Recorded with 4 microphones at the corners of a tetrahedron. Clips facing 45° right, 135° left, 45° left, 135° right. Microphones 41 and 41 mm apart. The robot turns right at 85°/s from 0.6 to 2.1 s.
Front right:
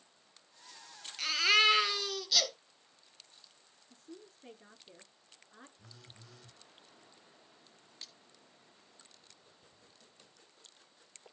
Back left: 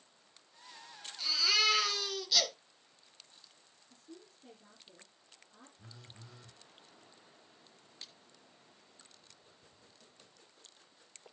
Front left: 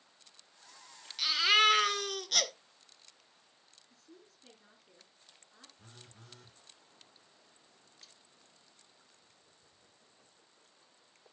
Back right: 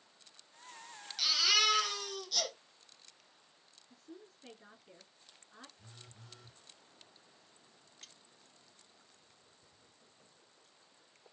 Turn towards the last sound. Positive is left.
turn(degrees=-160)